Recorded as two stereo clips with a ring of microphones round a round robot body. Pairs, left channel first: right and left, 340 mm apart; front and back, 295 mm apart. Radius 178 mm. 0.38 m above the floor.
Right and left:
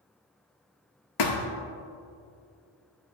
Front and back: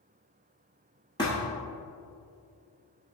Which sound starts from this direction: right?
A thud, at 1.2 s.